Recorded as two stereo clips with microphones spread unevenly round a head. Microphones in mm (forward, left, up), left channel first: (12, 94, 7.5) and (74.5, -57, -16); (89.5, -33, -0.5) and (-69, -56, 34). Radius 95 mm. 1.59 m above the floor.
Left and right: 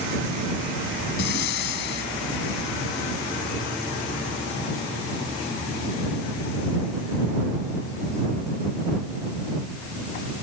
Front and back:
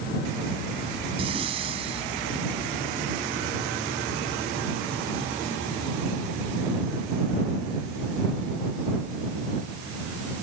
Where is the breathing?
130° left.